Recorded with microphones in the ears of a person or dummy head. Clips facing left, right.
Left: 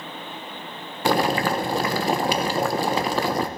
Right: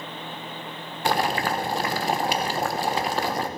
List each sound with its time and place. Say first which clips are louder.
1.1 s boiling: left 3 dB; 70° left (ahead or behind), 0.9 m